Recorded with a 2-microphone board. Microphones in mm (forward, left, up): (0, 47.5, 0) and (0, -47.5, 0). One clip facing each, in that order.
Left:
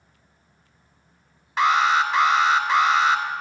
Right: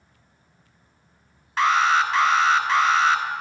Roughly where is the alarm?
Centre.